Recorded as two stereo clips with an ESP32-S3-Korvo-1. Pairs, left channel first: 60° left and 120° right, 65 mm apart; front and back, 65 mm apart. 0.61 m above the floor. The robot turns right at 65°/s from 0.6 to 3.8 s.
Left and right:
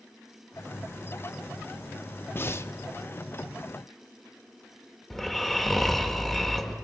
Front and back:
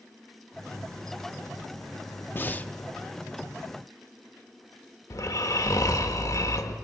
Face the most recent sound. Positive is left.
turn(degrees=-25)